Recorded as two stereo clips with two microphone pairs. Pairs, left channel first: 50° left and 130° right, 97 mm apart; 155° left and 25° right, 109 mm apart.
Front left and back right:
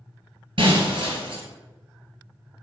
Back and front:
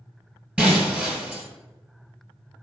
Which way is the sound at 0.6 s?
105° right.